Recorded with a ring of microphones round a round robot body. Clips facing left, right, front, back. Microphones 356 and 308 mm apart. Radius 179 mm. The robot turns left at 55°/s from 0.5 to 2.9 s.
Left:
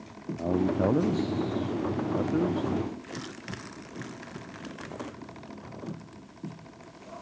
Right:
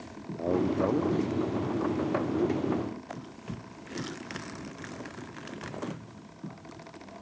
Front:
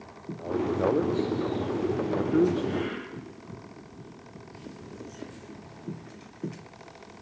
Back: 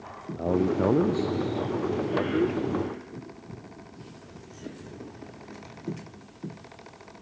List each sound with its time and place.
0.3 s a man speaking: 155° left; by 2.7 s 35° left